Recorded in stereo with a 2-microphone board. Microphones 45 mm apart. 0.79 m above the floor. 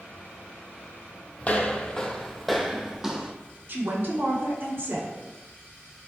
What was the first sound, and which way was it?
Footsteps, 30° left (ahead or behind).